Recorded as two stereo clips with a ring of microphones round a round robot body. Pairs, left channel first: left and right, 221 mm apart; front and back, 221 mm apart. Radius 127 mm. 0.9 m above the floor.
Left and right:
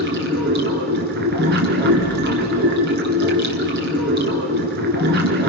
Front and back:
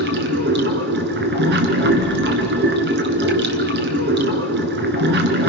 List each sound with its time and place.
0.0 s running water: 140° right, 2 m